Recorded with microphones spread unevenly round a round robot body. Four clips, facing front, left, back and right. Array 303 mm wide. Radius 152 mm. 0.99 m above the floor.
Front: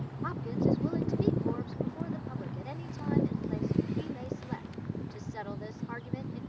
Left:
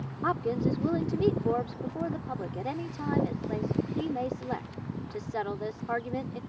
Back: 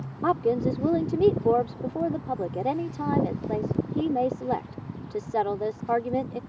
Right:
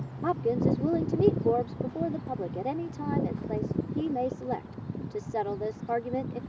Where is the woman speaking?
170° right.